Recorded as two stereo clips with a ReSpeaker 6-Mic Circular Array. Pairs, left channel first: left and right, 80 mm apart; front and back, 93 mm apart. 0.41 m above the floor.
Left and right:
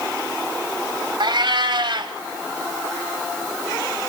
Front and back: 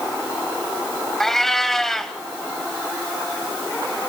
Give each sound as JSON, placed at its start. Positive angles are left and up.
{"t": 1.2, "sound": "a cat meowing", "azimuth_deg": -85, "distance_m": 1.1}